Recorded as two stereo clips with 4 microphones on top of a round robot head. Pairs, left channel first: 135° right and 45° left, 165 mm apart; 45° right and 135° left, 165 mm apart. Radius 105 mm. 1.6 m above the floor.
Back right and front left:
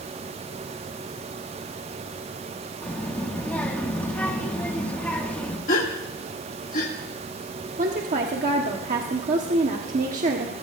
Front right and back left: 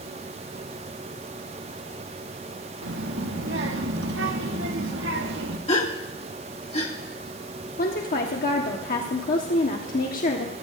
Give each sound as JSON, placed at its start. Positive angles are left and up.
{"t": 2.8, "sound": "a child speaking", "azimuth_deg": 140, "distance_m": 1.9}
{"t": 5.7, "sound": "a gasp", "azimuth_deg": -95, "distance_m": 1.8}
{"t": 7.8, "sound": "a woman speaking", "azimuth_deg": -5, "distance_m": 1.3}